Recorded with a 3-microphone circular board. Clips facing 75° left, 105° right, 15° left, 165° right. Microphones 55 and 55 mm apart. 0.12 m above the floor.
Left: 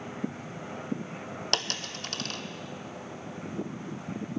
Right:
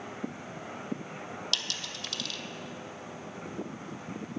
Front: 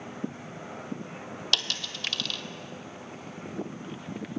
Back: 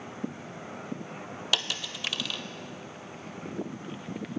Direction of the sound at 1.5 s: 115° left.